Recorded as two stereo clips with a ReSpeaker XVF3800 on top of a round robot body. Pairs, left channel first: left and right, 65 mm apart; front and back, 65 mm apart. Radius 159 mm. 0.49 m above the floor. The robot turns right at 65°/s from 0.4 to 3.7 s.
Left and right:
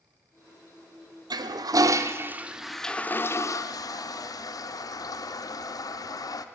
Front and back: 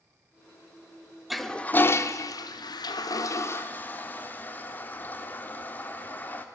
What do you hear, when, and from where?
1.3 s a toilet flushing: 90° right, 0.6 m; by 6.5 s 65° left, 0.6 m